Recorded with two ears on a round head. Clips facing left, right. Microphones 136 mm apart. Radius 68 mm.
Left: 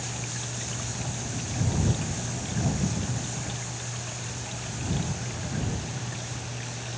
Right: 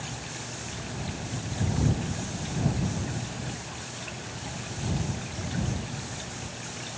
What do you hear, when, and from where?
Only background noise.